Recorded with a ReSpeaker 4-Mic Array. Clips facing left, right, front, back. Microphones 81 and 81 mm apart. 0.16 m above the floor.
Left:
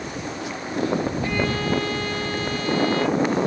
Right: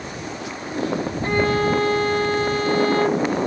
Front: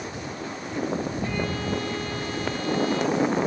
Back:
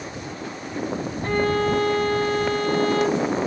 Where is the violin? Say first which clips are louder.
Right 4 dB, back 7 dB; 140° right.